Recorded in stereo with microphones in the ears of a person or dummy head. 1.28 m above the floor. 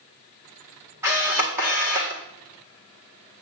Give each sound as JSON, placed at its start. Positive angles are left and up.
{"t": 1.0, "sound": "a camera shutter", "side_deg": -15, "distance_m": 1.7}